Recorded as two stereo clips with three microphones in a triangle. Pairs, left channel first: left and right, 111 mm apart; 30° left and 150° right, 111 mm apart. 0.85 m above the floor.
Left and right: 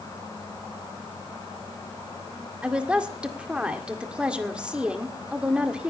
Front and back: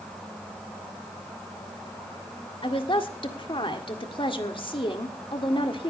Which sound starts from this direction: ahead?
A woman speaking, at 2.6 s.